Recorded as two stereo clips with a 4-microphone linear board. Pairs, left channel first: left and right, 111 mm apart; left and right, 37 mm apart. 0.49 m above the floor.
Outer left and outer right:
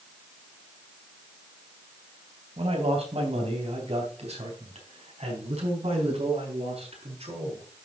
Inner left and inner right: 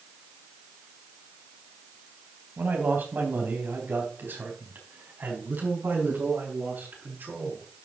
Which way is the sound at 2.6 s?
65° right (ahead or behind).